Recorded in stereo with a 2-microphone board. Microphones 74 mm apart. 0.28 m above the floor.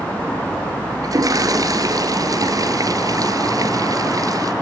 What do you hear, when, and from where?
1.0 s a toilet flushing: 55° right (ahead or behind), 2.5 m